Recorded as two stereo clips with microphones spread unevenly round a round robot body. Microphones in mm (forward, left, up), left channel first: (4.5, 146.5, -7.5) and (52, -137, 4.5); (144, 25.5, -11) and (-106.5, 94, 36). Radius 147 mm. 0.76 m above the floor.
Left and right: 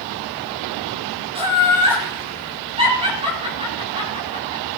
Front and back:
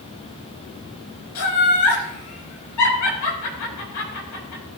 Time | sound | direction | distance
1.4 | laughter | 10° right | 4.5 m